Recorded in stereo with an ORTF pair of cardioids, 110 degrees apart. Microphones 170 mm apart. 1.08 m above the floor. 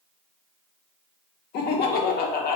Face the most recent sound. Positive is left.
turn(degrees=65)